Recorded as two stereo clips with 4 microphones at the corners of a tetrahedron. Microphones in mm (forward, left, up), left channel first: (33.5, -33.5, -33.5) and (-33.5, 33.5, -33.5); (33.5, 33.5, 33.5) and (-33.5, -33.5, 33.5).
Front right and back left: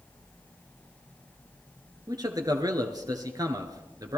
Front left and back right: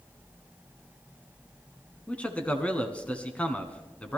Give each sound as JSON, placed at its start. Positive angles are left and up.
{"t": 2.1, "sound": "a man speaking", "azimuth_deg": 115, "distance_m": 1.7}